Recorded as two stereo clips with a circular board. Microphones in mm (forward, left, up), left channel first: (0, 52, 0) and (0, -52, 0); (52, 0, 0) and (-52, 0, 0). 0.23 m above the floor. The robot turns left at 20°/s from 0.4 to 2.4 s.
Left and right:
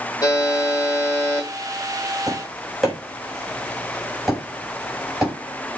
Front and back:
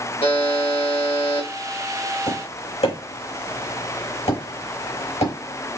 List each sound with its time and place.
0.2 s a buzzer: 35° left, 3 m; by 1.5 s 10° left, 3 m
2.3 s tapping: straight ahead, 4.5 m; by 5.3 s 5° right, 4.5 m